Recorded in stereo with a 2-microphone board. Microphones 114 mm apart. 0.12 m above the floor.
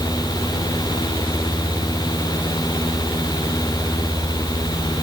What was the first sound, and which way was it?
Only background noise.